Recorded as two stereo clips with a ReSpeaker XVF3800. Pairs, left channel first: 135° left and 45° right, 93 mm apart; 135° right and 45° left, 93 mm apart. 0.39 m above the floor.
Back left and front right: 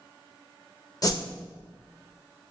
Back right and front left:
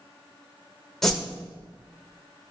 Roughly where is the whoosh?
Behind left.